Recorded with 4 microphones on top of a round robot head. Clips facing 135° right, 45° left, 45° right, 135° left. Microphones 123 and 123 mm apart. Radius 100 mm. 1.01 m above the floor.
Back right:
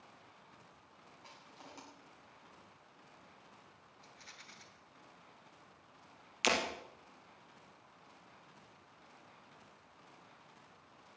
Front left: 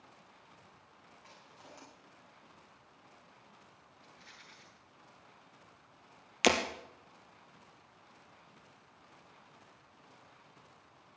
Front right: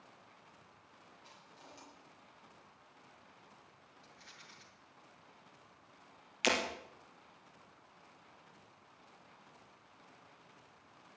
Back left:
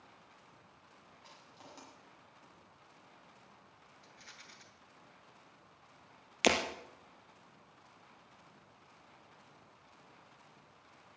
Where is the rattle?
175° left, 3 m.